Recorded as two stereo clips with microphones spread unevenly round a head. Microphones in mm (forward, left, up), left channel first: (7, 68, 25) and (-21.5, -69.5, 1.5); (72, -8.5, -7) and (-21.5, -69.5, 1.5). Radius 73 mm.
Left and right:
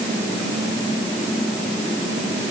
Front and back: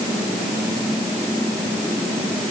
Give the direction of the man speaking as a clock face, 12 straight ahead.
I don't hear a man speaking.